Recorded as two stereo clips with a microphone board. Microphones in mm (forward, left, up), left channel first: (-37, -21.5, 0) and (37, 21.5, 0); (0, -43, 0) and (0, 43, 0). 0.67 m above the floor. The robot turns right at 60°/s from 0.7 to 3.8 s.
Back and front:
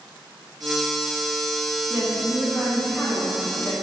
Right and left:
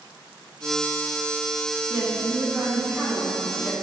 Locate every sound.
1.9 s a woman speaking: 85° left, 0.5 m; by 3.8 s 160° right, 0.5 m